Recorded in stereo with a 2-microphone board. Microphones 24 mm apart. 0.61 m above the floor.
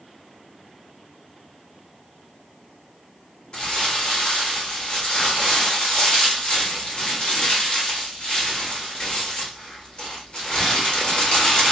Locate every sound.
3.5 s crumpling: 35° left (ahead or behind), 1.4 m